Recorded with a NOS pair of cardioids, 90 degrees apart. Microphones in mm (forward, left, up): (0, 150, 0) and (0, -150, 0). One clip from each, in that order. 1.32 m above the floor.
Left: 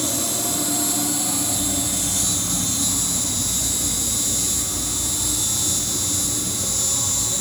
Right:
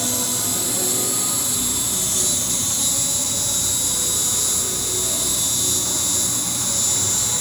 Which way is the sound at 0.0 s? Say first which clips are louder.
Right 1 dB; 5° right.